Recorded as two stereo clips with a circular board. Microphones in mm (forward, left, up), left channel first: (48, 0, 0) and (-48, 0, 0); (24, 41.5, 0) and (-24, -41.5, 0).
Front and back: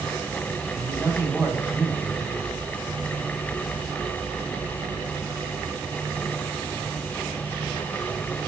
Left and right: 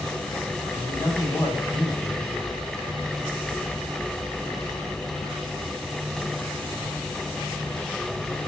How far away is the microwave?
No microwave in this recording.